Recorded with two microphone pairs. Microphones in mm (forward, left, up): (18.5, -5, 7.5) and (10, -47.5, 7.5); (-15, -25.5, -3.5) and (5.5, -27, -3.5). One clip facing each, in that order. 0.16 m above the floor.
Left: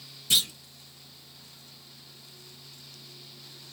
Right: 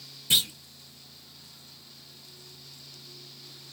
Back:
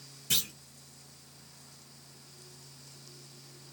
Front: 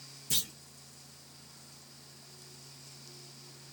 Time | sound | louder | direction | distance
0.3 | a clunk | right 1 dB, back 3 dB | 165° right | 1.6 m